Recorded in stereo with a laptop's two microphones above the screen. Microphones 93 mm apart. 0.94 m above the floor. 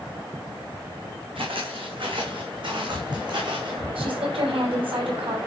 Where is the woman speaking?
70° right (ahead or behind), 5.5 m.